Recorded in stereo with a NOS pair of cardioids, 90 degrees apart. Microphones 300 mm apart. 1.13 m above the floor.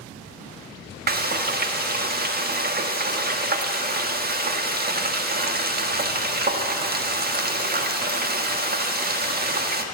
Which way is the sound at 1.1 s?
30° right.